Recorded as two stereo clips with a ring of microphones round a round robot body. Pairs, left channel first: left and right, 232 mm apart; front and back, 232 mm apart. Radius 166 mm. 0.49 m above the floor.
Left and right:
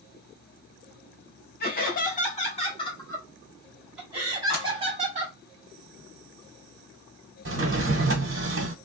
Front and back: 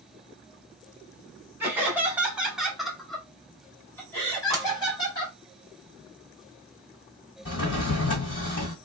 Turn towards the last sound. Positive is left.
turn(degrees=-55)